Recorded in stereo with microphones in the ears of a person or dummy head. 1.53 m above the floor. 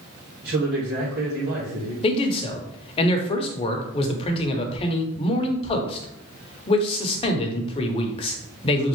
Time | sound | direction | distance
0.4 | a man speaking | 55° right (ahead or behind) | 1.5 m
2.0 | a man speaking | 30° left (ahead or behind) | 0.9 m